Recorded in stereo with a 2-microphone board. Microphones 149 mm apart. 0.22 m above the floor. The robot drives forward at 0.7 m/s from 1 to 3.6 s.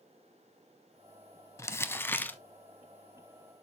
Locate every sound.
1.6 s crumpling: 20° left (ahead or behind), 0.6 m; by 2.4 s 10° left (ahead or behind), 1.0 m